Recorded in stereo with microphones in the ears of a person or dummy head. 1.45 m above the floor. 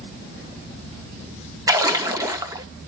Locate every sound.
1.7 s a splash: 15° right (ahead or behind), 0.9 m